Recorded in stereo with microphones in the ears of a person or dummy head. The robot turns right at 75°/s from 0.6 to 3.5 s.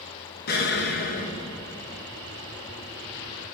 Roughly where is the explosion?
Left.